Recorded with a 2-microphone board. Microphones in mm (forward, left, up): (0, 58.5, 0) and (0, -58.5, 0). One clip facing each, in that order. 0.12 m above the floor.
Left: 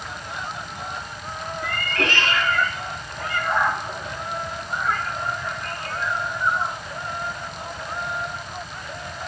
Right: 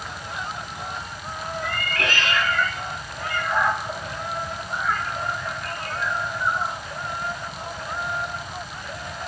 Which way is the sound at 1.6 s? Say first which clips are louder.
Left 3 dB; 35° left (ahead or behind).